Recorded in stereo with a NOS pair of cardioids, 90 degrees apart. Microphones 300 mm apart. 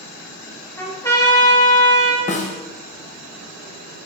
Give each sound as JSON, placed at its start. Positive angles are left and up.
{"t": 0.8, "sound": "a trumpet", "azimuth_deg": 10, "distance_m": 0.9}
{"t": 2.3, "sound": "a snare drum", "azimuth_deg": 25, "distance_m": 0.6}